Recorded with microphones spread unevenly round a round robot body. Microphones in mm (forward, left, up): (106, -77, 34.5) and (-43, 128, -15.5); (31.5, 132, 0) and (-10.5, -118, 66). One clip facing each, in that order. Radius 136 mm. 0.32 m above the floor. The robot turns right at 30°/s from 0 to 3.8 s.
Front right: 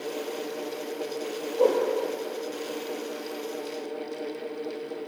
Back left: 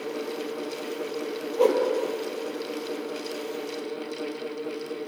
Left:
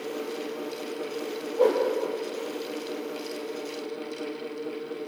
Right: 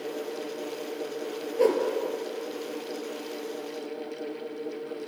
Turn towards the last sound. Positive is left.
turn(degrees=-100)